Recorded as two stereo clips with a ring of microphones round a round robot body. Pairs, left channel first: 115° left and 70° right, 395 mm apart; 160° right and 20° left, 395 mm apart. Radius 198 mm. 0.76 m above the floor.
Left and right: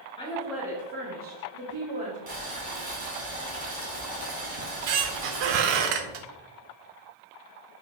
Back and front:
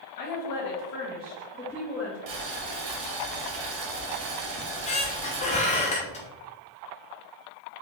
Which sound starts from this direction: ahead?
Boiling, at 2.3 s.